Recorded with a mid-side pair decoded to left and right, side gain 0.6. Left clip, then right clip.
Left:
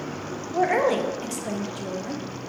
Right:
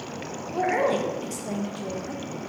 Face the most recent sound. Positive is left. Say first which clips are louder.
# left 2 dB
turn(degrees=20)